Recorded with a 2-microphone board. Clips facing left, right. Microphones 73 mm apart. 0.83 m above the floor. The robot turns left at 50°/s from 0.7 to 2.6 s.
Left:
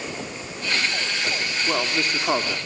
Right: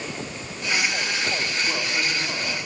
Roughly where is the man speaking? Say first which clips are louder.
Left 2 dB; behind left.